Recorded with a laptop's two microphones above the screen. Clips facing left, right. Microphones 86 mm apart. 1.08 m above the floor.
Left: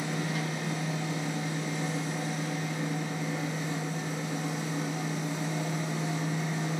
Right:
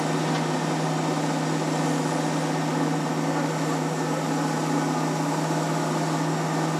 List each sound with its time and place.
0.0 s a machine running: 80° right, 1.1 m